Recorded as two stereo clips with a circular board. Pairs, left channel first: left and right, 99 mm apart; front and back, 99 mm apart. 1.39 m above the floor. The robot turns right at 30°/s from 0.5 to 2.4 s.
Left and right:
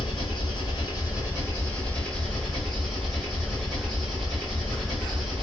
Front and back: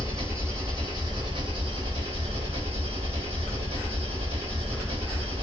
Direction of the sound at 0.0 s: 120° left.